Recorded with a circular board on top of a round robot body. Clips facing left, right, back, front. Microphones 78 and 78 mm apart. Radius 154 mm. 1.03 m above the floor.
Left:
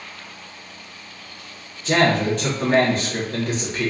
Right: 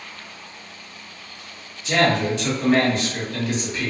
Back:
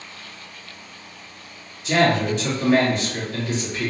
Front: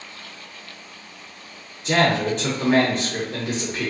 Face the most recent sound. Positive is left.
turn(degrees=40)